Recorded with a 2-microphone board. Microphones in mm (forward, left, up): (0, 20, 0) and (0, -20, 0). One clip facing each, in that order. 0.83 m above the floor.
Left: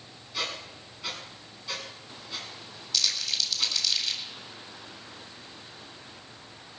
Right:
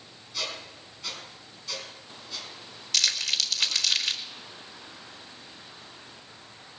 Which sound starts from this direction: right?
Crumpling, at 2.9 s.